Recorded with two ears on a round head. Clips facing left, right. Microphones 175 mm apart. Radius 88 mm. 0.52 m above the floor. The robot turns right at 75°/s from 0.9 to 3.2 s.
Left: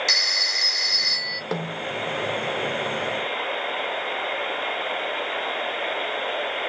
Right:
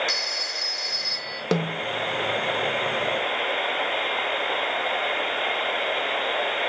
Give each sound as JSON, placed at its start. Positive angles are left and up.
{"t": 0.1, "sound": "a phone ringing", "azimuth_deg": 80, "distance_m": 1.0}
{"t": 1.5, "sound": "a snare drum", "side_deg": -35, "distance_m": 0.9}